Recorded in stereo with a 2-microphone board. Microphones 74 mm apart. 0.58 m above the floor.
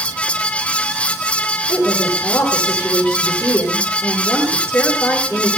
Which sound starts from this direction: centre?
A woman speaking, at 1.7 s.